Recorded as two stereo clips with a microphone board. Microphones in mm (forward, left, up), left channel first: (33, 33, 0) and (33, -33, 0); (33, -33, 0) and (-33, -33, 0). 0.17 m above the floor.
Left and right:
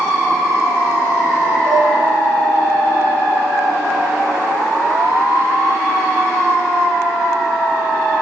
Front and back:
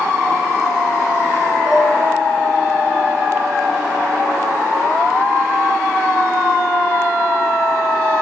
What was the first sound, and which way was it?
Dishes clattering, 105° right.